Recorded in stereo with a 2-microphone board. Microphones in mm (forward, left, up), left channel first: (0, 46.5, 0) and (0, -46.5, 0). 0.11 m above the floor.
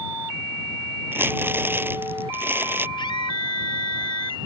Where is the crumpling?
25° right (ahead or behind).